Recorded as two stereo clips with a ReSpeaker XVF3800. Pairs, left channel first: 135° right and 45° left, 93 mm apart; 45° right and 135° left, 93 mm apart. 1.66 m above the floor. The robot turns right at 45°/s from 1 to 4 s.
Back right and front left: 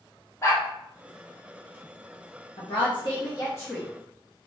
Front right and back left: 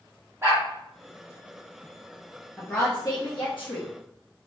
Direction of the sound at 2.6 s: 120° right.